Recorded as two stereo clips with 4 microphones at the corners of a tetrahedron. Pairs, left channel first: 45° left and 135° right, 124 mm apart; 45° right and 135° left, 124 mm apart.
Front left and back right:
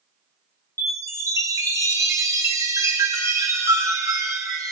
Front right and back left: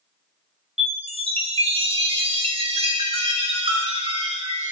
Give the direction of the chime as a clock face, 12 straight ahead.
7 o'clock.